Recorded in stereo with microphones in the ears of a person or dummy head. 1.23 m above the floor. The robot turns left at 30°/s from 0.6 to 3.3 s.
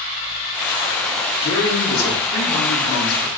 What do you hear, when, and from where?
1.4 s a man speaking: 105° left, 1.0 m; by 3.3 s 50° left, 1.0 m